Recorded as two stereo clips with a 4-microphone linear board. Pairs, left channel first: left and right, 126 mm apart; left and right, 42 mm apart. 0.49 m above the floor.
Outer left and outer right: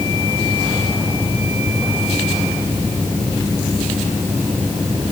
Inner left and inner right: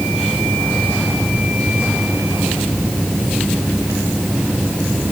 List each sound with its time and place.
Only background noise.